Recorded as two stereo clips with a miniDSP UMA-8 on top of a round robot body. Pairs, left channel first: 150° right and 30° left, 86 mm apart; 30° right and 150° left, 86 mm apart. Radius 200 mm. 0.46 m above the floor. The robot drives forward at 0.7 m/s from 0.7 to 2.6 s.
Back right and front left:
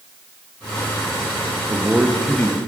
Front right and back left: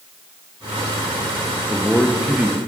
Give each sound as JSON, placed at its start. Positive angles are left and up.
{"t": 1.7, "sound": "a man speaking", "azimuth_deg": -10, "distance_m": 0.9}